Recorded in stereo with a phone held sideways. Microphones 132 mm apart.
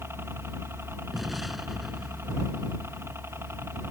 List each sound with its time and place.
0.0 s a helicopter: 20° right (ahead or behind)
1.1 s an explosion: centre (ahead or behind)